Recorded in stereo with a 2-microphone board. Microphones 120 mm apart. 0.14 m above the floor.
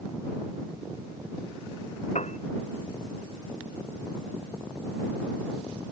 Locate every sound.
2.1 s a piano: 80° left